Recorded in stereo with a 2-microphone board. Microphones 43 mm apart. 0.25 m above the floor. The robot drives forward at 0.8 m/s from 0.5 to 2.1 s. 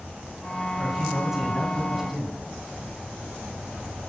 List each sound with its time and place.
0.8 s a man speaking: 20° right (ahead or behind), 1.8 m; by 2.4 s 15° right (ahead or behind), 2.5 m